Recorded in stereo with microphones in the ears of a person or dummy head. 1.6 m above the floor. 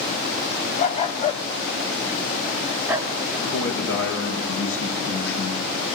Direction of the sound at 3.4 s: 75° left (ahead or behind).